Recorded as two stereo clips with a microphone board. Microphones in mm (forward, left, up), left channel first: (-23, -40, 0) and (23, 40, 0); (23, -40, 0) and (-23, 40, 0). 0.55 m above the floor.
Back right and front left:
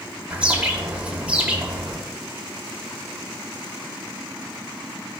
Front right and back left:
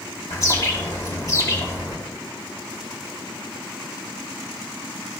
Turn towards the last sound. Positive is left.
turn(degrees=-15)